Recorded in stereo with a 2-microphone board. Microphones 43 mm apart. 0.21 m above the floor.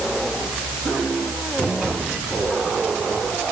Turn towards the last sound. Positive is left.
No sound to turn to.